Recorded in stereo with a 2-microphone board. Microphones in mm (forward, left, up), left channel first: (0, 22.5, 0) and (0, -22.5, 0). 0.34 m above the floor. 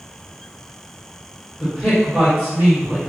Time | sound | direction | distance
1.6 | a man speaking | 10° left (ahead or behind) | 1.1 m